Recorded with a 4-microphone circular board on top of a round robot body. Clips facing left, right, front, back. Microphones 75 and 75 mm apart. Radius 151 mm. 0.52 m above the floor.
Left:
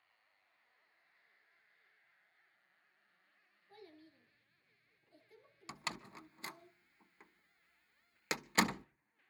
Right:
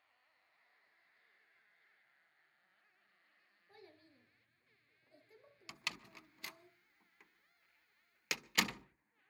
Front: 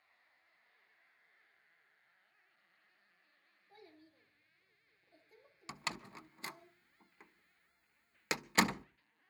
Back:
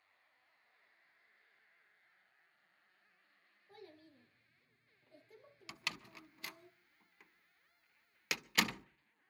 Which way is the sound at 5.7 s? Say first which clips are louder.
Left 3 dB, front 3 dB; 50° left.